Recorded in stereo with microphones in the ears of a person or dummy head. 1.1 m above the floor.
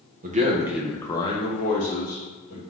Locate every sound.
0.2 s a man speaking: 40° right (ahead or behind), 0.6 m; by 2.6 s 50° left (ahead or behind), 1.5 m